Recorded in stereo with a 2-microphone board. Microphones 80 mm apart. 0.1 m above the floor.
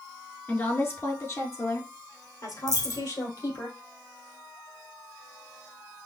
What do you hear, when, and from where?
0.5 s a woman speaking: 25° left (ahead or behind), 1.1 m; by 3.7 s 60° left (ahead or behind), 2 m
2.7 s a dropped coin: 50° left (ahead or behind), 1.2 m